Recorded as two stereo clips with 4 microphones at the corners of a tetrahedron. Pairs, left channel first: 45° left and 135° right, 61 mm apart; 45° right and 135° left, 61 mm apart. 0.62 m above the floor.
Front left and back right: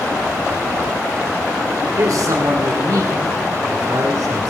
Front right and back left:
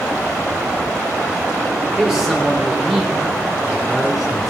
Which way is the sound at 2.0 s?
140° right.